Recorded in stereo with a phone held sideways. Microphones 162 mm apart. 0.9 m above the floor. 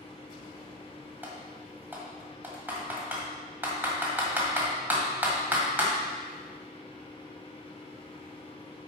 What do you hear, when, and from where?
0.0 s a fan: 35° left (ahead or behind), 1.0 m
1.2 s typing on a keyboard: 10° right (ahead or behind), 1.7 m